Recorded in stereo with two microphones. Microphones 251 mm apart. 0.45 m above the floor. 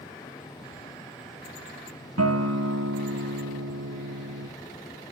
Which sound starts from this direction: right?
A guitar, at 2.2 s.